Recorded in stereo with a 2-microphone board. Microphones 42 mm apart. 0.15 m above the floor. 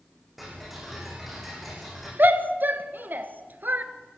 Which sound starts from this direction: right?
A shout, at 2.2 s.